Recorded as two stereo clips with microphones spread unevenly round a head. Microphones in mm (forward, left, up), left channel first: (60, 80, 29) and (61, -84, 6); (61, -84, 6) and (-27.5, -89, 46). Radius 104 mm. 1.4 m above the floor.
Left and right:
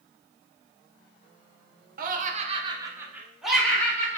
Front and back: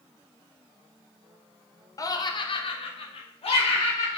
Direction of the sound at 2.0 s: 55° right.